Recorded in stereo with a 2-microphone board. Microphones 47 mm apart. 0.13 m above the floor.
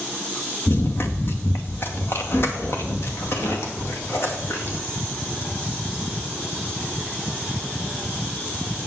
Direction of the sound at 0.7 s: 55° left (ahead or behind).